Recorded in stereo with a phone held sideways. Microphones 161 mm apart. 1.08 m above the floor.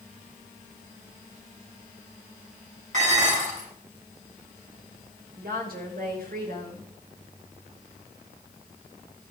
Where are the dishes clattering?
50° right (ahead or behind), 7 m.